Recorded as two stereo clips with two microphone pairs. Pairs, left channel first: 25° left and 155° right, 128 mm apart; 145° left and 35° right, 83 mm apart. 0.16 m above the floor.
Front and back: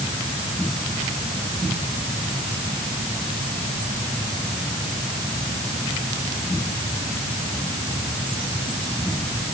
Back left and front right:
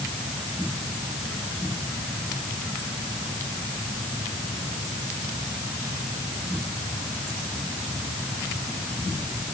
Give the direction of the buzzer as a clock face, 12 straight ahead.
I don't hear a buzzer.